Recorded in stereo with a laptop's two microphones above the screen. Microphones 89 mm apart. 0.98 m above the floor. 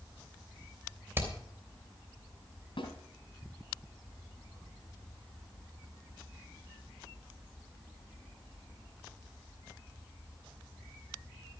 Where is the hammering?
25° right (ahead or behind), 3 m.